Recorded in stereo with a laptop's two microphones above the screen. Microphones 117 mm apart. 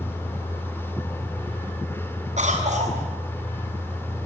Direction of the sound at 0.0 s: 20° left (ahead or behind).